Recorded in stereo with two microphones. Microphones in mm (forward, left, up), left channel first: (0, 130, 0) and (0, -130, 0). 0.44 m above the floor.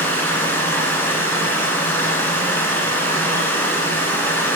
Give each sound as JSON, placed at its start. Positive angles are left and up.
{"t": 0.0, "sound": "running water", "side_deg": 10, "distance_m": 1.4}